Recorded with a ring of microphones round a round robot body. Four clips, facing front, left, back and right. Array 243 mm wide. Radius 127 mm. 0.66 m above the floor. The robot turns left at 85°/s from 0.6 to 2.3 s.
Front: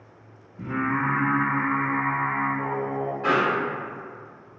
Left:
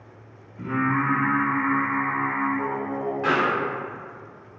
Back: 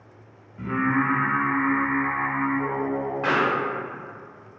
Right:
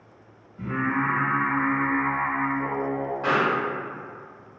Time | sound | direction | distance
0.6 | singing | 170° left | 0.9 m
3.2 | a pop | 170° left | 1.3 m